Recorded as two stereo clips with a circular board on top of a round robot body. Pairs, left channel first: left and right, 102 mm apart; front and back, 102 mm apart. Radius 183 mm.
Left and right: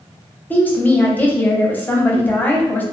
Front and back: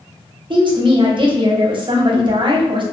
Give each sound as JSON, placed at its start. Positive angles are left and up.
{"t": 0.5, "sound": "a woman speaking", "azimuth_deg": 160, "distance_m": 0.8}